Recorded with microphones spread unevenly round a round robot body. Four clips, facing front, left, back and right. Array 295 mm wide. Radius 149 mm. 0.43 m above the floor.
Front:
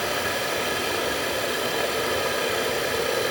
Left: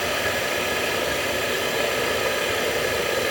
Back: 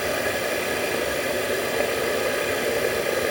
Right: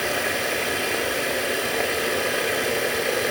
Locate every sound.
0.0 s running water: 165° right, 1.0 m